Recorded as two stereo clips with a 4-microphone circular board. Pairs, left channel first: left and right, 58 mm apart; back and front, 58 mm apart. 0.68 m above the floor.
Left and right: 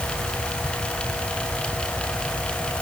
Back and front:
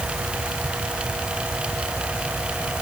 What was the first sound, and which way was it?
Only background noise.